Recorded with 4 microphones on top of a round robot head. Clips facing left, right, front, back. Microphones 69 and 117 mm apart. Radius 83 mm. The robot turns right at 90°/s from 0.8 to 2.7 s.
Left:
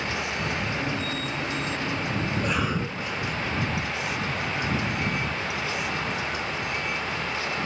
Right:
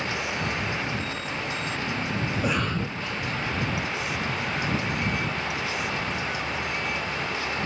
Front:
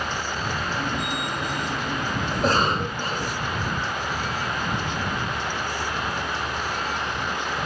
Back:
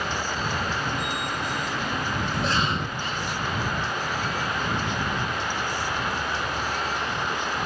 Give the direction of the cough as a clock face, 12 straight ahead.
1 o'clock.